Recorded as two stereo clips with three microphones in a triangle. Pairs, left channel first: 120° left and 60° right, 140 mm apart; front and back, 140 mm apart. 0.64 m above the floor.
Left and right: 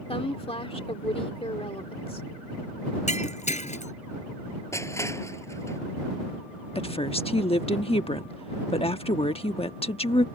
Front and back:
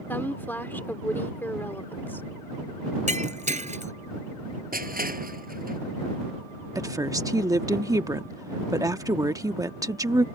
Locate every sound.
0.1 s a woman speaking: 75° left
3.1 s breaking glass: 150° left
4.7 s crushing: 170° right
6.8 s a woman speaking: 125° left